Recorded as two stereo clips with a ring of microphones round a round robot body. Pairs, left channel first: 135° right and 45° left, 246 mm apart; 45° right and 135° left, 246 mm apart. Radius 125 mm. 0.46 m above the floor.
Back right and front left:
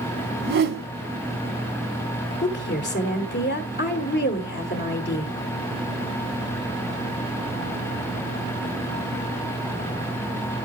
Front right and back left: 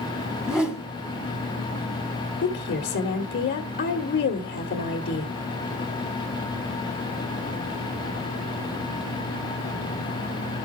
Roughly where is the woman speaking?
Right.